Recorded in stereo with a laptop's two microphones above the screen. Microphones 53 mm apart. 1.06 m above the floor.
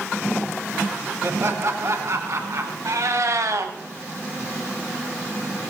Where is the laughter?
50° right (ahead or behind), 2 m; by 2.8 s 65° right (ahead or behind), 3 m.